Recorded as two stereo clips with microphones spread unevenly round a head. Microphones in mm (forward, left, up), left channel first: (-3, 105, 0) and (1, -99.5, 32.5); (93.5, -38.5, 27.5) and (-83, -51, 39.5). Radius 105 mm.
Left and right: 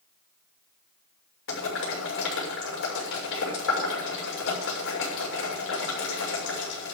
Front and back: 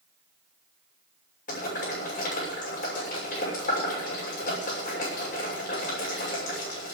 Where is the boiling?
60° left, 6.5 m.